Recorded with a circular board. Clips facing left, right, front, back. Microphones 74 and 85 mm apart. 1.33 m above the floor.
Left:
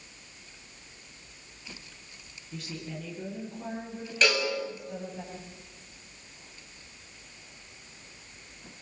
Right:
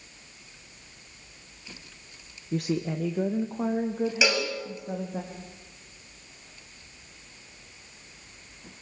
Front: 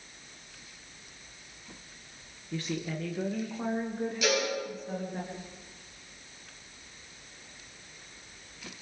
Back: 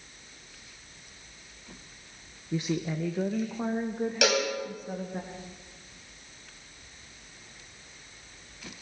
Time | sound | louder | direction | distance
2.5 | a woman speaking | right 11 dB, back 4 dB | 110° right | 1.1 m
4.2 | a cowbell | left 2 dB, back 3 dB | 170° right | 6 m